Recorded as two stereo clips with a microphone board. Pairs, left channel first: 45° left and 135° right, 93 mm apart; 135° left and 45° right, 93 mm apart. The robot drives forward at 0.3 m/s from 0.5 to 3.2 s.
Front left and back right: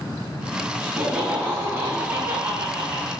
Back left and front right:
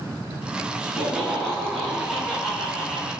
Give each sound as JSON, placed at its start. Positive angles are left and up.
{"t": 0.8, "sound": "laughter", "azimuth_deg": -110, "distance_m": 1.3}